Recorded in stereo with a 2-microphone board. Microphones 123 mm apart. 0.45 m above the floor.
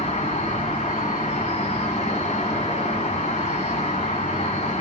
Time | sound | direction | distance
0.0 | an insect | 65° left (ahead or behind) | 1.5 m